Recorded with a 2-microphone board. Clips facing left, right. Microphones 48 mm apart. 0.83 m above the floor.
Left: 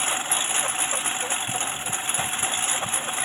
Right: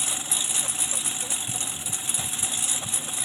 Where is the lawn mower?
40° left (ahead or behind).